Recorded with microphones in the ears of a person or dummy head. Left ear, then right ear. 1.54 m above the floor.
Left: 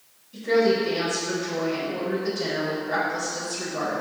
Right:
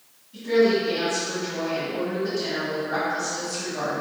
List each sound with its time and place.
0.3 s a woman speaking: 75° left (ahead or behind), 2.0 m